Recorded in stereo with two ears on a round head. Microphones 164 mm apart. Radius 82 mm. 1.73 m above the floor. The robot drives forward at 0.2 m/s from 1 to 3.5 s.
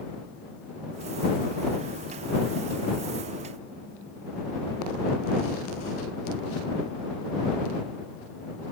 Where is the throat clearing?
No throat clearing in this recording.